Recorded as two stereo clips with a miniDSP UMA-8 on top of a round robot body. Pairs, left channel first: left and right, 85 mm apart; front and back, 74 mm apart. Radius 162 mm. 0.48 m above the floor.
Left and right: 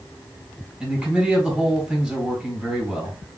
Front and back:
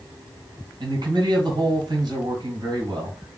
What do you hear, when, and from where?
0.8 s a man speaking: 175° right, 2 m